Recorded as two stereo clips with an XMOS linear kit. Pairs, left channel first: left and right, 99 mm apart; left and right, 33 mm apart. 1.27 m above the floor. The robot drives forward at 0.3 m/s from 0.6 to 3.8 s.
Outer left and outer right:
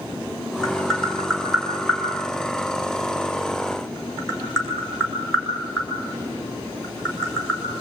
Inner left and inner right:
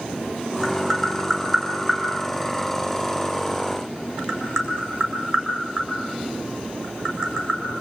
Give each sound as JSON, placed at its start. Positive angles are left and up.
{"t": 0.6, "sound": "tapping", "side_deg": 5, "distance_m": 7.0}